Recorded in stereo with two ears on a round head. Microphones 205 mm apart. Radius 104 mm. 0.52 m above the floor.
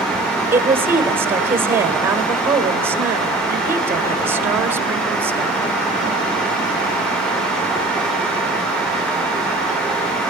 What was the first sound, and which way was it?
A woman speaking, 10° right (ahead or behind).